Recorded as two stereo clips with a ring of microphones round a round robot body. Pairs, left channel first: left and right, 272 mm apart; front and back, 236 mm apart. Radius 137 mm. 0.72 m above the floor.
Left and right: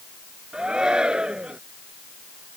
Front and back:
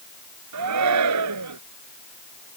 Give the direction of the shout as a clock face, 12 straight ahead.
6 o'clock.